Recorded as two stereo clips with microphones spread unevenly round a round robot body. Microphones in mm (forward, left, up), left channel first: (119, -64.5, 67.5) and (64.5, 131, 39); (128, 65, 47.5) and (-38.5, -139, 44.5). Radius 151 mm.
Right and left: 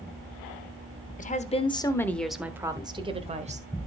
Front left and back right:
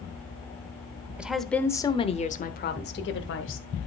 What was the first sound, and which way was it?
A woman speaking, 45° right.